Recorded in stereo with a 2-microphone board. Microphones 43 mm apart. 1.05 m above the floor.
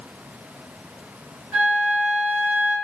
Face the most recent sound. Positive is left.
turn(degrees=-40)  # may be behind; listen again after turning